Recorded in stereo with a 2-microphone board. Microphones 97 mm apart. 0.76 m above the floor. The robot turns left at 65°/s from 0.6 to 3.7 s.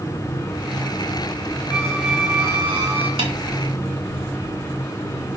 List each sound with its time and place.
1.7 s a squeak: 10° left, 5 m; by 3.1 s 80° right, 5 m
3.2 s a snare drum: 70° right (ahead or behind), 4 m; by 3.3 s 75° right (ahead or behind), 4 m